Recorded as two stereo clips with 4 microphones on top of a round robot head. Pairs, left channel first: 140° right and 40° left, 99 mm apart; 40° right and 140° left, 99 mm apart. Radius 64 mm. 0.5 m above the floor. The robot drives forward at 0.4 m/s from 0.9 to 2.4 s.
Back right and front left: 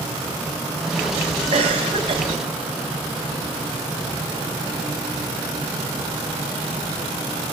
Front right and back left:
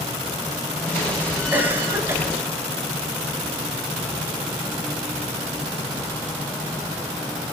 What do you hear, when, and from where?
1.5 s a cough: 70° left, 3.5 m; by 2.2 s 75° left, 3.5 m